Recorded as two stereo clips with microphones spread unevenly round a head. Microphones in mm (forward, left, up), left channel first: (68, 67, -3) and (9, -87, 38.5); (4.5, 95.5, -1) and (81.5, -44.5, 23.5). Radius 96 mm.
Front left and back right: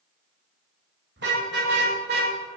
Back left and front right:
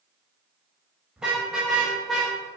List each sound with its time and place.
1.2 s a car horn: 145° right, 4.5 m; by 2.3 s 150° right, 3 m